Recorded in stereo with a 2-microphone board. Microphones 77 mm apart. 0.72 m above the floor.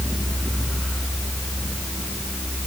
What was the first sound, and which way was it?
Only background noise.